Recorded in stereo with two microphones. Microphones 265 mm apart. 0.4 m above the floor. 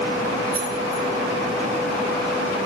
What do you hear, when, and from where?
0.5 s keys jangling: 50° right (ahead or behind), 1.7 m